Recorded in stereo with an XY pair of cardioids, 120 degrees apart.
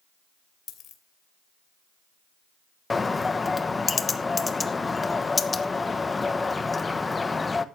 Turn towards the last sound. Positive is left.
turn(degrees=20)